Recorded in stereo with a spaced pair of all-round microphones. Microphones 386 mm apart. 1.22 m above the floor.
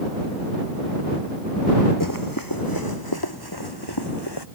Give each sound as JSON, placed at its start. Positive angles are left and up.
{"t": 2.0, "sound": "running footsteps", "side_deg": 50}